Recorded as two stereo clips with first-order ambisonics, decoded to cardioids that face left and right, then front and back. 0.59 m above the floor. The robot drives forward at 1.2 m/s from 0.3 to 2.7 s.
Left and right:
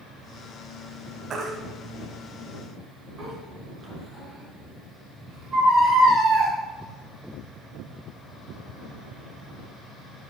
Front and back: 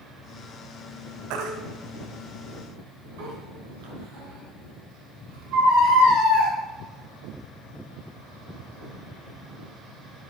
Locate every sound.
1.3 s a baby crying: 155° right, 1.5 m; by 6.5 s 165° right, 3 m